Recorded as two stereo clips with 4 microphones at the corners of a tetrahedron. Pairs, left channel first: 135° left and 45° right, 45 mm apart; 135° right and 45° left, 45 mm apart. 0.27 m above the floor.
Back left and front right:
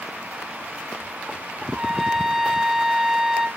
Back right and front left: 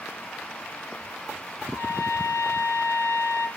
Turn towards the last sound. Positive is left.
turn(degrees=-130)